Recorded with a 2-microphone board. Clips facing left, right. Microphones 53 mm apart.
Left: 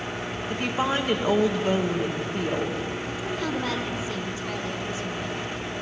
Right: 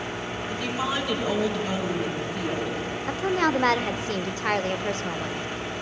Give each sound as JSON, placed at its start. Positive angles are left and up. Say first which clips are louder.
{"t": 0.5, "sound": "a woman speaking", "louder": "left 3 dB", "side_deg": 45, "distance_m": 2.0}
{"t": 3.1, "sound": "a woman speaking", "louder": "right 10 dB", "side_deg": -60, "distance_m": 0.8}